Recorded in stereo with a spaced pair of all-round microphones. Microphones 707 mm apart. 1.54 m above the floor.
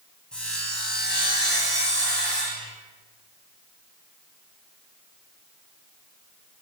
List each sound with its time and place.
0.3 s sawing: centre (ahead or behind), 3 m